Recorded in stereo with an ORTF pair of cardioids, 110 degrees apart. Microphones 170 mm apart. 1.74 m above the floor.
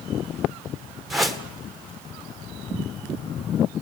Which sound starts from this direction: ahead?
A whoosh, at 1.1 s.